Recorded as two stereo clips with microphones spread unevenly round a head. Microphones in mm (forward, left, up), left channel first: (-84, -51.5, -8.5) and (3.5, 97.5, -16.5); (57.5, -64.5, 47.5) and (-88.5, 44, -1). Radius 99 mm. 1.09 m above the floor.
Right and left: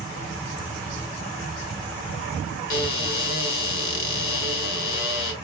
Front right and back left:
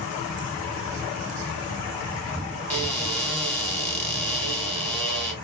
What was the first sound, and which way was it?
A cupboard door, 115° right.